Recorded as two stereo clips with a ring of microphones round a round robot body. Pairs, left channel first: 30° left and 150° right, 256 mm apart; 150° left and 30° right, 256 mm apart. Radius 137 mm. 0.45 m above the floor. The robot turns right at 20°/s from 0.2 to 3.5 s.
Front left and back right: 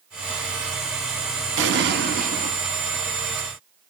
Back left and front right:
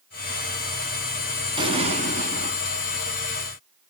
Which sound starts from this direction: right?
An explosion, at 1.6 s.